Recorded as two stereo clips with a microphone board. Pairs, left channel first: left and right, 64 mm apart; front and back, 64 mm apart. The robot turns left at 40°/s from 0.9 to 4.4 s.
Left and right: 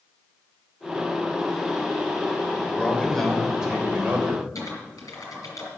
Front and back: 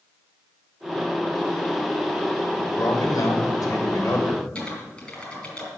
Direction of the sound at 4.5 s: 70° left.